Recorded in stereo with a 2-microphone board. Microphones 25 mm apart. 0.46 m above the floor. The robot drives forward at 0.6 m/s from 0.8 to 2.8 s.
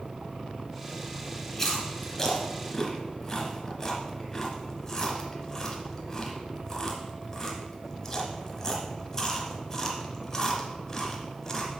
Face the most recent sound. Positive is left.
turn(degrees=25)  # may be behind; listen again after turning